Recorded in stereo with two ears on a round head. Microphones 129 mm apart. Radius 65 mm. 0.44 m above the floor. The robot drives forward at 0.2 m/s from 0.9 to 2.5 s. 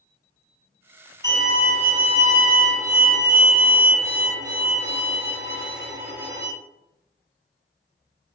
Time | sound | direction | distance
1.2 | a violin | 25° right (ahead or behind) | 1.8 m